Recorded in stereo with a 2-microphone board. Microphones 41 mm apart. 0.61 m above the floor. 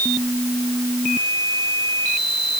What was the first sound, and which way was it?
Only background noise.